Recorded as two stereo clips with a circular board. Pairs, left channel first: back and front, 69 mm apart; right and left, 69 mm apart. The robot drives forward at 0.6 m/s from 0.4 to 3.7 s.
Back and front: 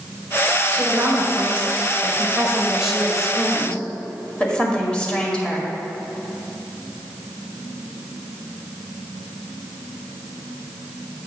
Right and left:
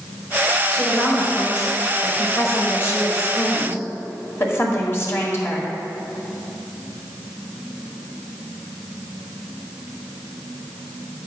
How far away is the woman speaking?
About 2 m.